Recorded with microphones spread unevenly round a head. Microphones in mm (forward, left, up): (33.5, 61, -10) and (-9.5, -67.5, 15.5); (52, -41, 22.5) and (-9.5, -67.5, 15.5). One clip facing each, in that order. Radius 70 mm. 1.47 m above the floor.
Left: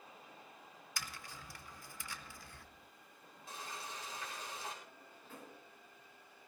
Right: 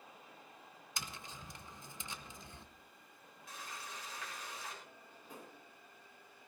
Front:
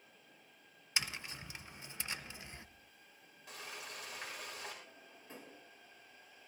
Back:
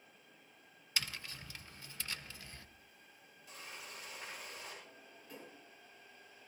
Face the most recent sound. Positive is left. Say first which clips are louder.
# right 1 dB, even
turn(degrees=-35)